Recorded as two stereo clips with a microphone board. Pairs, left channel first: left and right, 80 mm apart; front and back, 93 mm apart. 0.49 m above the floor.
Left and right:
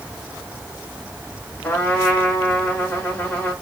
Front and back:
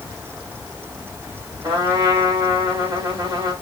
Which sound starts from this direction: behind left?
A trumpet, at 1.6 s.